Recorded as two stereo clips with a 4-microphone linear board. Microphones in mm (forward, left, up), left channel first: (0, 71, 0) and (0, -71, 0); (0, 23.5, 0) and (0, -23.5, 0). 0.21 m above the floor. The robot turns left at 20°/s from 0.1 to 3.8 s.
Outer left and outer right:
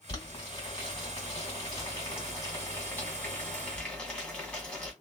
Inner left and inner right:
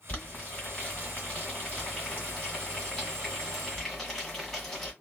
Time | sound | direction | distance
0.1 | boiling | 30° left (ahead or behind) | 1.8 m